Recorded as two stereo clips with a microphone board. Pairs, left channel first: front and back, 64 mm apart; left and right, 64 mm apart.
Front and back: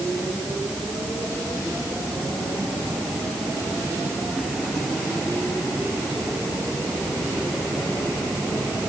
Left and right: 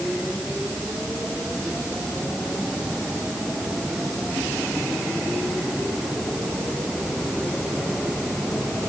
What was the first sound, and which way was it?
Only background noise.